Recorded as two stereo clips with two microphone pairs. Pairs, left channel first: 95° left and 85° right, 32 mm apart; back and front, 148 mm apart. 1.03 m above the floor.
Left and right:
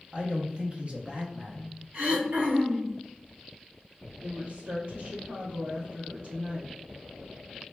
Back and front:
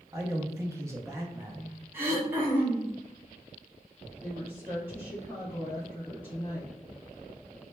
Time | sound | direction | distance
0.1 | a man speaking | 55° right | 0.6 m
1.9 | throat clearing | 75° right | 1.0 m
4.2 | a woman speaking | 75° right | 1.3 m